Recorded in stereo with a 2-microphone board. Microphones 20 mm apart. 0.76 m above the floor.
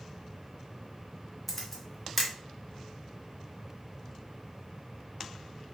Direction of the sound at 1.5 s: Centre (ahead or behind).